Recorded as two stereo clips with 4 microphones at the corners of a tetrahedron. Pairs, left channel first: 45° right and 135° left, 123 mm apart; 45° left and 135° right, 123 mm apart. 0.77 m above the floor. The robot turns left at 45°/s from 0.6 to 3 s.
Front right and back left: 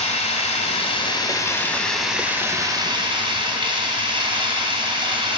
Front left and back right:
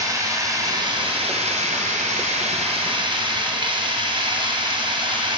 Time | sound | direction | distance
0.0 | running water | 75° right | 2 m